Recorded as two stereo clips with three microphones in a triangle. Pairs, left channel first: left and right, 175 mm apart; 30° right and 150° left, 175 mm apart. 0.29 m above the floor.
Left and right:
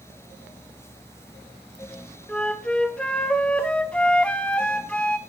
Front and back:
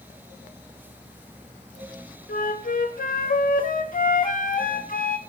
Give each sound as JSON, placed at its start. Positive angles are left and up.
{"t": 2.3, "sound": "a flute", "azimuth_deg": 5, "distance_m": 0.6}